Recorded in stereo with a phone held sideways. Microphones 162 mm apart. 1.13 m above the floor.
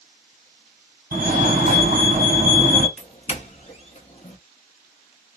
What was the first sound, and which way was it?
A fire alarm, 60° right (ahead or behind).